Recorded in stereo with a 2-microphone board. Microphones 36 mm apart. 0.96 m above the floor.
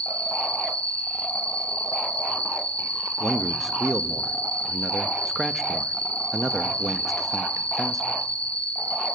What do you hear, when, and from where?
0.0 s an insect: 40° left (ahead or behind), 1.4 m
3.2 s a man speaking: 5° right (ahead or behind), 1.0 m